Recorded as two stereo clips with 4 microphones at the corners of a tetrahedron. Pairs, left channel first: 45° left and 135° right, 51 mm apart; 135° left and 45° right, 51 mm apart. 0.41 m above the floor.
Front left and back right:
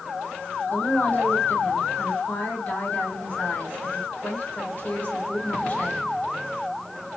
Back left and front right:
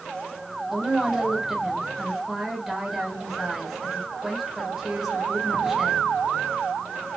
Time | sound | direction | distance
0.7 | a woman speaking | 35° left | 1.5 m